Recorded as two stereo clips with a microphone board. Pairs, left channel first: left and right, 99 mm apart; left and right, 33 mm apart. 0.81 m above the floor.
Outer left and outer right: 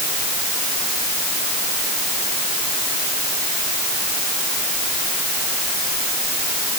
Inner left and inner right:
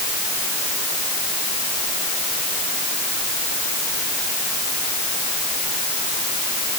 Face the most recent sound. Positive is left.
No sound to turn to.